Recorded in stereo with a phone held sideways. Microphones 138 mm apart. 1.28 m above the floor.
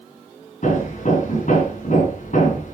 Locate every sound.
0.6 s hammering: 75° left (ahead or behind), 3.5 m